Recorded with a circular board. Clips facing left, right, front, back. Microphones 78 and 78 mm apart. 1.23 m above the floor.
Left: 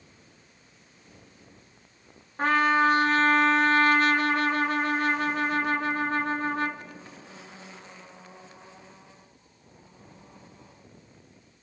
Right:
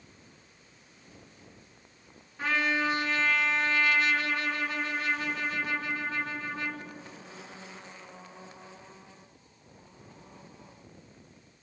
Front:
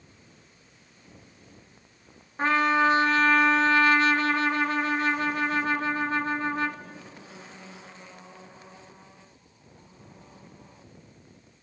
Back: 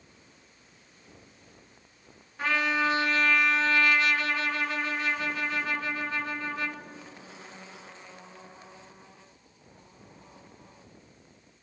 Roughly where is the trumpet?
Ahead left.